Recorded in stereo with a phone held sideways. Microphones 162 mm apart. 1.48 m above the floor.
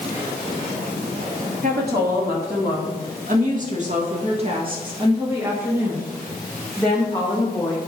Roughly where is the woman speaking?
Right.